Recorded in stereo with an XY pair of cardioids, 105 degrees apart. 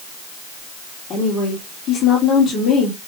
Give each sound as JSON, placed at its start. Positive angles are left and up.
{"t": 1.1, "sound": "a woman speaking", "azimuth_deg": 60, "distance_m": 2.0}